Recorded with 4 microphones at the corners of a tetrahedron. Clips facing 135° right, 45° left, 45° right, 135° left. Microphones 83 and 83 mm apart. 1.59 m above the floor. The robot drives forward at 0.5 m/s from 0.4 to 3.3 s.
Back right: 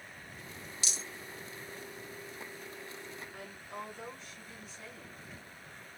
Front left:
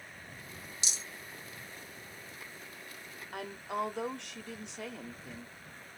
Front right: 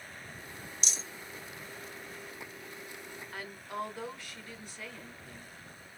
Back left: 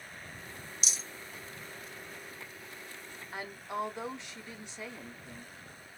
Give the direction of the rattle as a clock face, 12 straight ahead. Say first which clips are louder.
Back right 1 dB, front right 1 dB; 10 o'clock.